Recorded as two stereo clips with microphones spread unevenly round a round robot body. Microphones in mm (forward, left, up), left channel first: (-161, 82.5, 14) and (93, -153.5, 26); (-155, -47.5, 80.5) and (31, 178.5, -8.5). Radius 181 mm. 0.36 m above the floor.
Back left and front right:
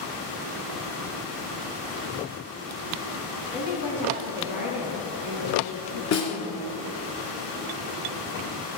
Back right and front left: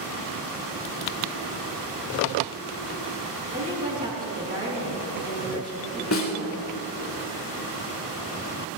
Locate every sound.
3.5 s a woman speaking: 120° left, 4 m
6.1 s a snare drum: 175° right, 2.5 m